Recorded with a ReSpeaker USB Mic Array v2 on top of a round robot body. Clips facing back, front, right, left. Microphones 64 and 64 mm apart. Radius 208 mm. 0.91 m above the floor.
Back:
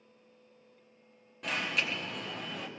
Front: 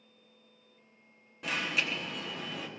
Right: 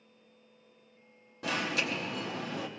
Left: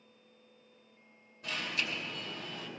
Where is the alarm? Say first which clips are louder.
Even, right 5 dB; 90° right, 0.7 m.